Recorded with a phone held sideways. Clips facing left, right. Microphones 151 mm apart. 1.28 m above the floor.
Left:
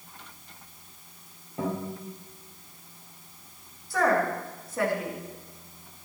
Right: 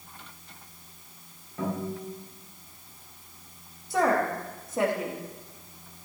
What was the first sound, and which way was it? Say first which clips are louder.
A guitar: even; 25° left (ahead or behind).